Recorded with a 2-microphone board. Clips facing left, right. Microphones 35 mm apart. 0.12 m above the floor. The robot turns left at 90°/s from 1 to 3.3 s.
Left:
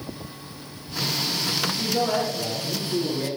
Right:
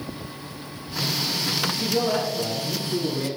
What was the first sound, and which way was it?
A man speaking, 95° left.